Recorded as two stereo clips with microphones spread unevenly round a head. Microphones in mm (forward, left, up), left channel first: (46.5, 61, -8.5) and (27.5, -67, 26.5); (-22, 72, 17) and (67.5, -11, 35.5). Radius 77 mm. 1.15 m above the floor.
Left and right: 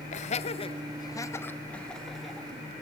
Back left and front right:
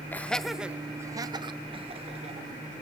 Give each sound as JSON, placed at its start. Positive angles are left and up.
{"t": 0.1, "sound": "laughter", "azimuth_deg": 65, "distance_m": 1.4}